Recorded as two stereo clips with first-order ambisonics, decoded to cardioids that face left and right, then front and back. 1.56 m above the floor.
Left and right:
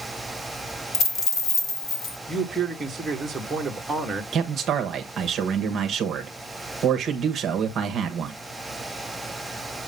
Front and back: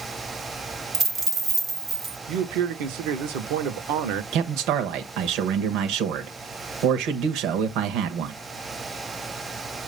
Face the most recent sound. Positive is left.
turn(degrees=-150)